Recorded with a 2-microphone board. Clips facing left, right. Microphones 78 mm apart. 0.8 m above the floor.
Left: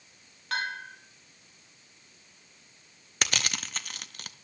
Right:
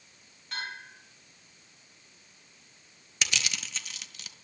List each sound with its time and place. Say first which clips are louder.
0.5 s a bell: left 6 dB; 75° left (ahead or behind), 2.5 m
3.2 s crushing: left 2 dB; 50° left (ahead or behind), 0.5 m